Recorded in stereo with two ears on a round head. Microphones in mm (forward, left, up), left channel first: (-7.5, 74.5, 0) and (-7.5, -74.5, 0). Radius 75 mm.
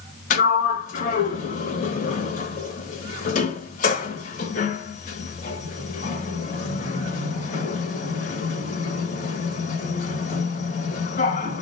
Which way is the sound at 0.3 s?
50° left (ahead or behind).